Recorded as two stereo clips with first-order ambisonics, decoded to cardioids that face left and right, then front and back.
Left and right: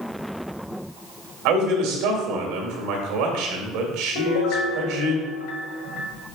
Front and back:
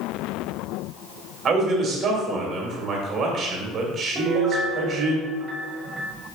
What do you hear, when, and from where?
1.4 s a man speaking: 115° right, 2 m
4.2 s a piano: 115° left, 1.4 m